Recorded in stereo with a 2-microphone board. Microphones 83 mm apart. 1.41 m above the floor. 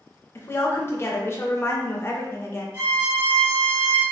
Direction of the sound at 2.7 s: 30° right (ahead or behind).